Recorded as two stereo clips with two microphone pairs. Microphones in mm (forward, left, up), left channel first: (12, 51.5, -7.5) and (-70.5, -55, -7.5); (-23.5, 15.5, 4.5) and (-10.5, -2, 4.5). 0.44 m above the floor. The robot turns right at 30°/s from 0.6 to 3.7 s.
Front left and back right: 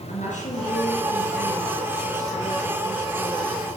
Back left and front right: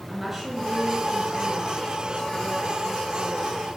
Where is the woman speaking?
30° left, 6 m; by 3.7 s 120° left, 6 m.